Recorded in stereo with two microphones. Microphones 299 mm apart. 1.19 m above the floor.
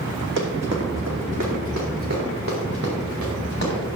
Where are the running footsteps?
60° right (ahead or behind), 3 m.